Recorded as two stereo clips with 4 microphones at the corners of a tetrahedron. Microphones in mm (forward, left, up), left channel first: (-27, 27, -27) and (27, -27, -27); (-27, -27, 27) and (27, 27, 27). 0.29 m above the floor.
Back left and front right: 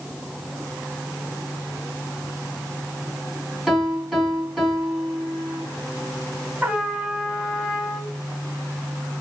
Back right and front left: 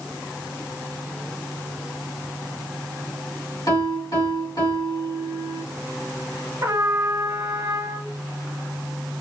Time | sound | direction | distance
3.7 | a piano | 125° right | 2.5 m
6.6 | a trumpet | 20° left | 1.0 m